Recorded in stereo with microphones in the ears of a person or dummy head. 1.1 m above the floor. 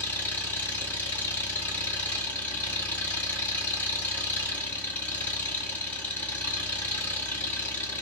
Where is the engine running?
10° left (ahead or behind), 1.7 m.